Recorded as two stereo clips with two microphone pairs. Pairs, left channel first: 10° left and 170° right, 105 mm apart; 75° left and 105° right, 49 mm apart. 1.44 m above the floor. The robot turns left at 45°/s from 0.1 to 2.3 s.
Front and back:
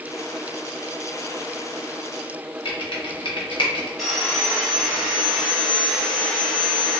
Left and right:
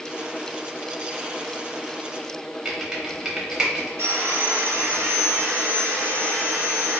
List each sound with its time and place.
2.6 s typing on a keyboard: 25° right, 0.7 m
4.0 s sawing: 80° right, 0.8 m